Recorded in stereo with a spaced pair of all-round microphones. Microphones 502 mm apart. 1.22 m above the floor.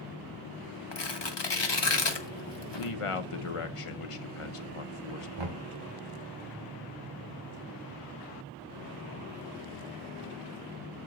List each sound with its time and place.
0.9 s tearing paper: 55° left (ahead or behind), 0.9 m
2.7 s a man speaking: 85° left, 0.7 m
5.4 s knocking: 60° right (ahead or behind), 1.2 m